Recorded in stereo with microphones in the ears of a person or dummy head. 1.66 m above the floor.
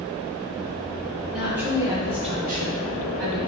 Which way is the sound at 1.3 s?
5° right (ahead or behind).